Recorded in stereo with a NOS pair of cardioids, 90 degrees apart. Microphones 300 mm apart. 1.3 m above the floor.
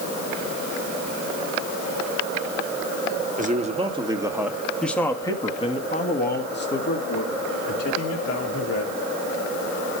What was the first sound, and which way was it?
A man speaking, 25° right.